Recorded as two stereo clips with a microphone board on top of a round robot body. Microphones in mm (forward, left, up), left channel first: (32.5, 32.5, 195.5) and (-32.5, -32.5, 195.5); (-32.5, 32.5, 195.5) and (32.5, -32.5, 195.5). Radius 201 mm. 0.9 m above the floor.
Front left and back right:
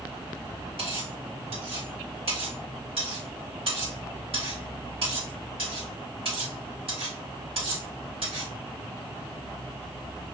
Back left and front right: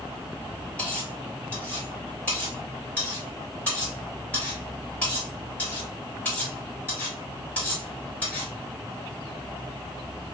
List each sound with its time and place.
0.8 s cutlery clinking: 150° right, 1.7 m